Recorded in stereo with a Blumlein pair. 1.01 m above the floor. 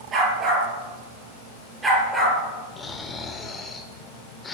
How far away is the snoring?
About 1.5 m.